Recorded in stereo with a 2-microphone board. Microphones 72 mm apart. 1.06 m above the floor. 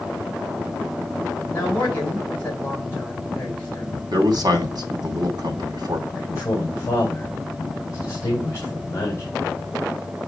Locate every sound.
1.5 s a man speaking: 30° left (ahead or behind), 8 m
4.1 s a man speaking: 65° right (ahead or behind), 2.5 m
6.1 s a man speaking: 40° left (ahead or behind), 3.5 m